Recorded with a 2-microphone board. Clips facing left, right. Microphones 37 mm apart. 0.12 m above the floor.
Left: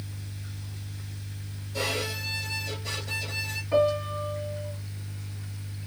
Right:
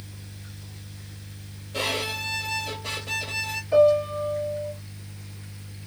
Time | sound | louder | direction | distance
1.7 | a violin | right 3 dB | 55° right (ahead or behind) | 1.3 m
3.7 | a piano | right 6 dB | 25° left (ahead or behind) | 2 m